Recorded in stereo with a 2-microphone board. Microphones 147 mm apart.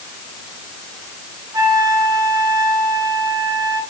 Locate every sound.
1.5 s a flute: 25° right (ahead or behind), 1.4 m